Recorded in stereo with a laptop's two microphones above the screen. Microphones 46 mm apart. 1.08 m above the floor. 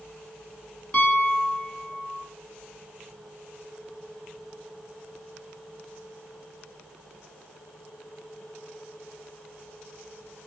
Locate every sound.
0.9 s a piano: 30° left (ahead or behind), 1.3 m